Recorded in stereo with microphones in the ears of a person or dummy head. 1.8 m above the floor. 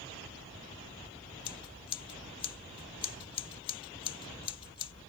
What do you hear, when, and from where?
1.4 s scissors: 30° left (ahead or behind)